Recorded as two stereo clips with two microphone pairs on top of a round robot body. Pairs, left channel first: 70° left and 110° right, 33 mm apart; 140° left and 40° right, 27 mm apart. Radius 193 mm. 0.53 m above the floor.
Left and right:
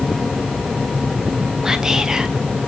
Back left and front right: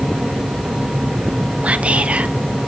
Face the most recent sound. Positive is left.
turn(degrees=-45)